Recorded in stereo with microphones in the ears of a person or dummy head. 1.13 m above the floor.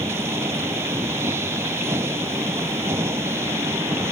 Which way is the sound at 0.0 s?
20° right (ahead or behind).